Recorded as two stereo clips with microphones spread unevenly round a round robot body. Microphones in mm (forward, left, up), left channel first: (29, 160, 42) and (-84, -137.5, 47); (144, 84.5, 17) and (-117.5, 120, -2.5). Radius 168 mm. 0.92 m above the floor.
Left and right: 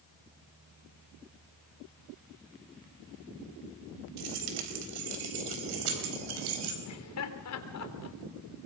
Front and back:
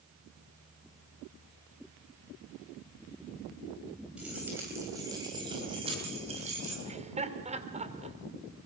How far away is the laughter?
About 3.5 m.